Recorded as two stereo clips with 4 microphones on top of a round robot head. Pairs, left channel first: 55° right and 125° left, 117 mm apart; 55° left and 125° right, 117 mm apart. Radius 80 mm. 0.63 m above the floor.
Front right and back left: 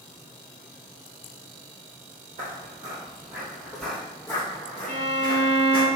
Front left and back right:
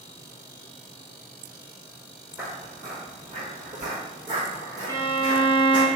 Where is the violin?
65° right, 1.1 m.